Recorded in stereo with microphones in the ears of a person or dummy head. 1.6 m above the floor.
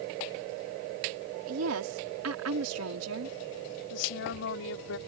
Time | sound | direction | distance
1.5 | a woman speaking | 85° right | ?
3.9 | a woman speaking | 70° left (ahead or behind) | ?